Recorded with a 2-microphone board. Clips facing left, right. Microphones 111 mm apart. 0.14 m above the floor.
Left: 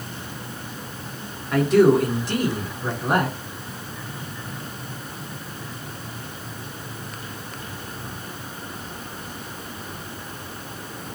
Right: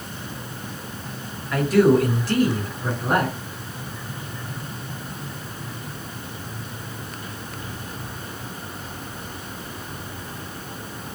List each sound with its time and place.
1.5 s a man speaking: 30° left (ahead or behind), 1.5 m; by 3.4 s 5° left (ahead or behind), 1.3 m